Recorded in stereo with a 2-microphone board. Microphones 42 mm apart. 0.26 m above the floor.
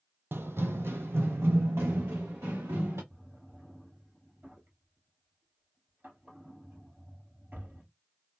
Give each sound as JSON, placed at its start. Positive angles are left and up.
{"t": 0.3, "sound": "running footsteps", "side_deg": -70, "distance_m": 0.5}
{"t": 3.1, "sound": "a drawer", "side_deg": -45, "distance_m": 2.5}